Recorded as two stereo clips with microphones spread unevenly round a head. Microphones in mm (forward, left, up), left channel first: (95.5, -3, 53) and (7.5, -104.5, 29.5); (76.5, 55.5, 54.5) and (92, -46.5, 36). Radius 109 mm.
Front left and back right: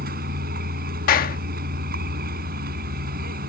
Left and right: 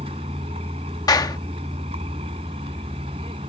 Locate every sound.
0.0 s a vehicle: 140° right
1.1 s a clap: 45° left